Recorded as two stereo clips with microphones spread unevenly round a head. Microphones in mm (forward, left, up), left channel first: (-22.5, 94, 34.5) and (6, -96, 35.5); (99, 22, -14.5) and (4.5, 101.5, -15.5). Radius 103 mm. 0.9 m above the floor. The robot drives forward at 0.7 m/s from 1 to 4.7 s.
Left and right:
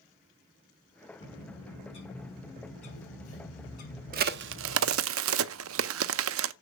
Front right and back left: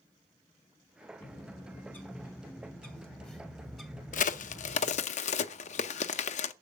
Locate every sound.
1.2 s a bird: 35° left, 4.5 m; by 5.0 s 60° left, 3 m
4.1 s a crack: 35° right, 0.7 m; by 6.5 s 70° right, 0.5 m